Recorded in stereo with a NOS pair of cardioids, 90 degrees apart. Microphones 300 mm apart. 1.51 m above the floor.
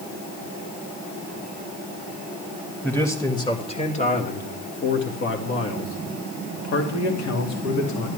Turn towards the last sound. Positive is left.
turn(degrees=70)